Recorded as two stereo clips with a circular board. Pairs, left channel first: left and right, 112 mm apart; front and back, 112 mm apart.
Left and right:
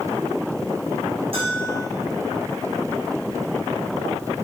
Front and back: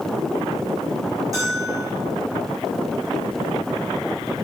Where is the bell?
120° right, 8 m.